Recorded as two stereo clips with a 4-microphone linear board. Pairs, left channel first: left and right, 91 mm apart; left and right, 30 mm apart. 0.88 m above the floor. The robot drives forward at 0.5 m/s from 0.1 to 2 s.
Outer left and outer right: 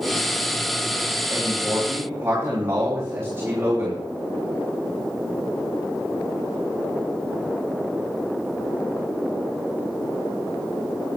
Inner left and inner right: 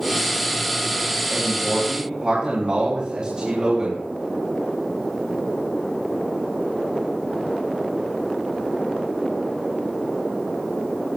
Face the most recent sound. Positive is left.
turn(degrees=-25)  # may be behind; listen again after turning